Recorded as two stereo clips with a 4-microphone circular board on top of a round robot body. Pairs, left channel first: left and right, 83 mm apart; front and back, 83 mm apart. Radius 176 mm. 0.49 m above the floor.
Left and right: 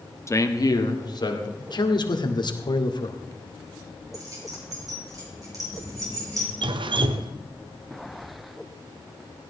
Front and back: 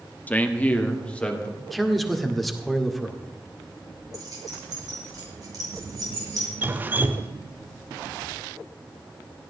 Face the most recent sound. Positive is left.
turn(degrees=-110)